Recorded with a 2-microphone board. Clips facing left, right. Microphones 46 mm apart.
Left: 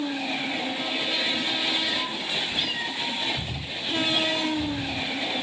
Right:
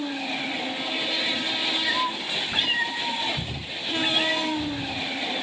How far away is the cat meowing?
About 3.5 m.